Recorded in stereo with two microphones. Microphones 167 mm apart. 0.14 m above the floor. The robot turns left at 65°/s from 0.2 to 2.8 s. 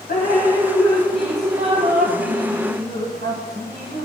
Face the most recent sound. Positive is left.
turn(degrees=-100)